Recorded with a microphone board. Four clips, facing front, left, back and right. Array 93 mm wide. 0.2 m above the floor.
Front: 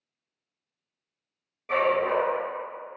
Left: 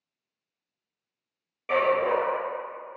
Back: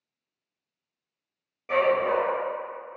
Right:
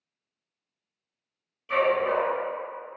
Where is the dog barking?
100° left, 1.3 m.